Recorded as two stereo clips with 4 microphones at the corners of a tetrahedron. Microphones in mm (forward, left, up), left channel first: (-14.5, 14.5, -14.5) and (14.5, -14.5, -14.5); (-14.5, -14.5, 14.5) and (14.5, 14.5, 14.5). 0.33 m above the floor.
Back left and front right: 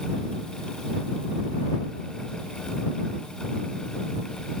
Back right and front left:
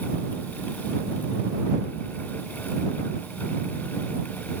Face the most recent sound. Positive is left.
No sound to turn to.